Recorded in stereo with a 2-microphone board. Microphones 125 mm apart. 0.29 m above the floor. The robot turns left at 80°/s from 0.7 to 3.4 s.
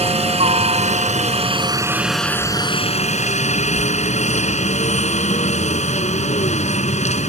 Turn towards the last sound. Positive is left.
turn(degrees=80)